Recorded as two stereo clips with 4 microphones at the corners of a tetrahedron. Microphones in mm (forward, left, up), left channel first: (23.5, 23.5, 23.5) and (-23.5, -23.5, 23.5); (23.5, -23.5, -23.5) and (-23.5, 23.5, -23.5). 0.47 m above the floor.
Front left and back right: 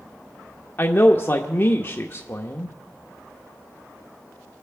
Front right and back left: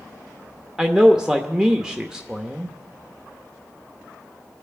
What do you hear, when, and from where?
0.8 s a man speaking: 65° left, 0.8 m